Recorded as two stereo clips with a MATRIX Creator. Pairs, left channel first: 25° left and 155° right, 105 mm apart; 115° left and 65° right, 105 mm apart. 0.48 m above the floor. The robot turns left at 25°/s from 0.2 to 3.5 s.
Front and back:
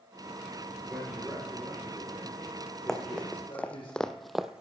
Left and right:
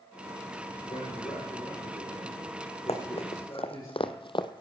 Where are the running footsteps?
110° left, 1.6 m; by 4.6 s 125° left, 0.6 m.